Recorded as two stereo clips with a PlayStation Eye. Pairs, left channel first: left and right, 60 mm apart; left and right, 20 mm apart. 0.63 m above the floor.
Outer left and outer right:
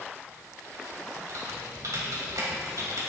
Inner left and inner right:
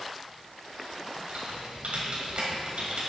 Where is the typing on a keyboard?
70° right (ahead or behind), 2 m.